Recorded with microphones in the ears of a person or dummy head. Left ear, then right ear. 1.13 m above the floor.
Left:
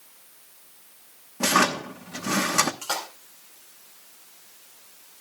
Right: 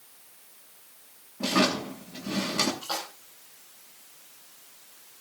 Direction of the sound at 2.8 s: 70° left (ahead or behind).